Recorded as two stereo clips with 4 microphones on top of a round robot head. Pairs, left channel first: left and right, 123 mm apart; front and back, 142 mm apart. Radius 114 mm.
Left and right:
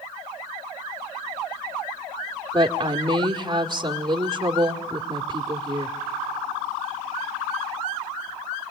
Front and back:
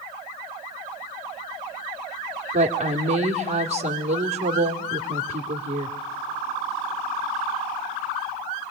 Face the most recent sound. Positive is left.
turn(degrees=-150)